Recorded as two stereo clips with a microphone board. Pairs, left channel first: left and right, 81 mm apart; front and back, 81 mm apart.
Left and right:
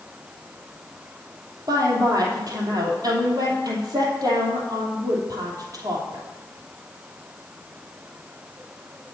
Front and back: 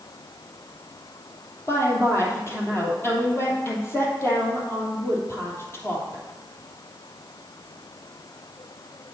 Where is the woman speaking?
55° right, 3 m.